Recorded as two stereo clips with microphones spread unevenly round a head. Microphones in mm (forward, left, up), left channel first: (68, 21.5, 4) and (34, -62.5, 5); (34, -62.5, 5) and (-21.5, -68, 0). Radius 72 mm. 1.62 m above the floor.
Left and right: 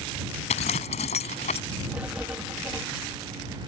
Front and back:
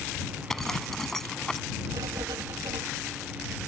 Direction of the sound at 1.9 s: 170° left.